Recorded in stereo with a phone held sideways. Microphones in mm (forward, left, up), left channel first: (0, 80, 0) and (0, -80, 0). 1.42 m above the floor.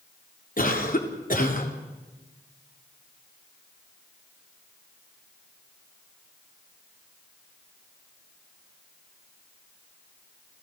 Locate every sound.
0.6 s a cough: 60° left (ahead or behind), 3.5 m